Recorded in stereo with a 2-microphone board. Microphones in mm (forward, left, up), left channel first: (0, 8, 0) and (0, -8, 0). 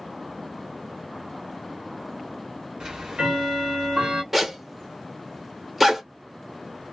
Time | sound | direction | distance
2.8 | ticking | 50° right (ahead or behind) | 1.2 m
4.3 | a zipper | 15° right (ahead or behind) | 0.9 m